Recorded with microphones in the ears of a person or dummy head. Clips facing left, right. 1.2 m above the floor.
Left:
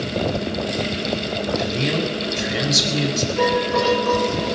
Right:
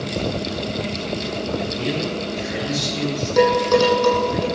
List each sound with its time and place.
1.6 s a man speaking: 80° left, 5.5 m
3.4 s dishes clattering: 85° right, 8 m